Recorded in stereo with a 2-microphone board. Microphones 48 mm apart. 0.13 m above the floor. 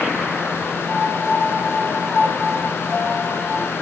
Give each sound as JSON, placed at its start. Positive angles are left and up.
{"t": 0.9, "sound": "a piano", "side_deg": 20, "distance_m": 1.2}